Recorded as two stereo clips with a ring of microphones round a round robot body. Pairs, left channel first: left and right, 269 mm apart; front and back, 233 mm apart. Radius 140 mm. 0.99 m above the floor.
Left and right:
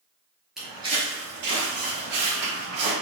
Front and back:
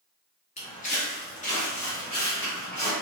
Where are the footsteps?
5° right, 1.0 m; by 2.9 s 70° right, 2.5 m.